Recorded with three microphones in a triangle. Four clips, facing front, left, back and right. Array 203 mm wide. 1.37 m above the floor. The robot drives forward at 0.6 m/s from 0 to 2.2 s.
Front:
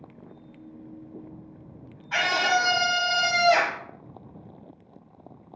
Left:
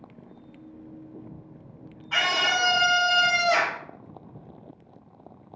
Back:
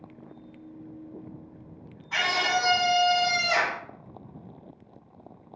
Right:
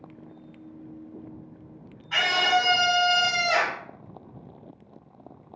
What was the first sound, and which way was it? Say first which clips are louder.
A scream: right 2 dB, front 3 dB; 15° left.